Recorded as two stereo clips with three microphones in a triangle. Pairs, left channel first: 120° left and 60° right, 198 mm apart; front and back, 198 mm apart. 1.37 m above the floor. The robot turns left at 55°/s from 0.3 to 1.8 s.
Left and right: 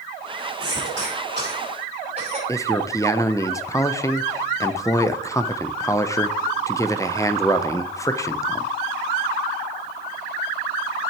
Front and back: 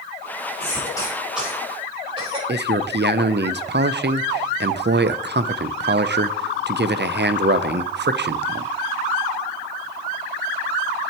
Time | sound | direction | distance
0.6 | a cough | 50° right | 5 m
2.5 | a man speaking | 170° right | 0.5 m